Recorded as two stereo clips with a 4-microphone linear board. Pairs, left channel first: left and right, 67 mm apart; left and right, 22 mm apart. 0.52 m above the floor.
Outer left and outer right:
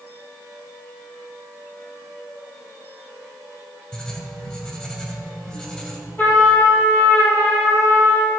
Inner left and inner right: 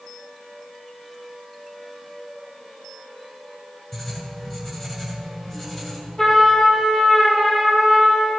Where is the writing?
15° left (ahead or behind), 2 m.